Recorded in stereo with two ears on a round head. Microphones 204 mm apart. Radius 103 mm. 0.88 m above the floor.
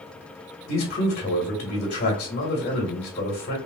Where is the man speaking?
35° left (ahead or behind), 1.2 m.